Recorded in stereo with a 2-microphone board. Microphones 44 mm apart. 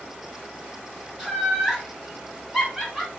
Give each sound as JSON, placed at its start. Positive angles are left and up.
{"t": 1.2, "sound": "laughter", "side_deg": -5, "distance_m": 1.4}